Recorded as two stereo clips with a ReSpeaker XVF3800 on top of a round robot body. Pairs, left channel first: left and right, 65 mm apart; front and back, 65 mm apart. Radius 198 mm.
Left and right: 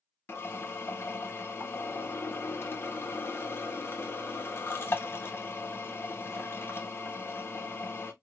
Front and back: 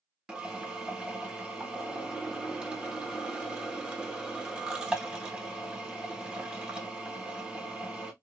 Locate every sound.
0.3 s a drill: 110° left, 1.2 m